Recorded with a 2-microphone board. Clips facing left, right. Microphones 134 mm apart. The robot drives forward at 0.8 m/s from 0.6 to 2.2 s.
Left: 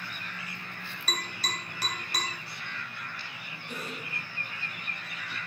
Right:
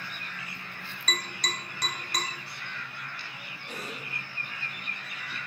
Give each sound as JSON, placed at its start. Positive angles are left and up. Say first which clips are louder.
{"t": 1.1, "sound": "tapping", "louder": "right 1 dB", "side_deg": 5, "distance_m": 1.5}
{"t": 3.7, "sound": "a cough", "louder": "left 1 dB", "side_deg": -45, "distance_m": 1.9}